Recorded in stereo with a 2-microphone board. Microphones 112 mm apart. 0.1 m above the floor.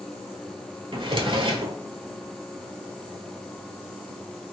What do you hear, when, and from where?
0.9 s a drawer: 55° right (ahead or behind), 0.5 m